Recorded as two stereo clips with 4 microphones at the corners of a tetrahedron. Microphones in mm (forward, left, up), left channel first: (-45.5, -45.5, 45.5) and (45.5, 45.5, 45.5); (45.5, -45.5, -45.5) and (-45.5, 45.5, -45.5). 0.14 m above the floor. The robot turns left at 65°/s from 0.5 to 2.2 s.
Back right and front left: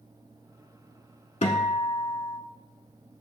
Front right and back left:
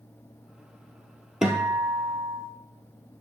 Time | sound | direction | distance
1.4 | a guitar | 135° right | 0.7 m